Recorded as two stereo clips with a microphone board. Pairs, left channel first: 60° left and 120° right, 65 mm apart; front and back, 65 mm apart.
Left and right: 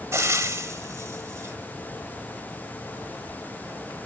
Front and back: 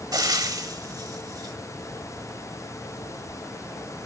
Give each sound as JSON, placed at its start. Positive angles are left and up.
{"t": 0.1, "sound": "frying", "azimuth_deg": -165, "distance_m": 1.2}